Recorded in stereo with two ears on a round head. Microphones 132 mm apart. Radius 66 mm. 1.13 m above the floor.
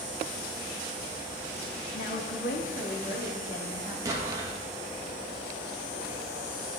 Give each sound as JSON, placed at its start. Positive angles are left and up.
{"t": 1.9, "sound": "a woman speaking", "side_deg": 70, "distance_m": 1.4}
{"t": 4.0, "sound": "an explosion", "side_deg": -20, "distance_m": 1.6}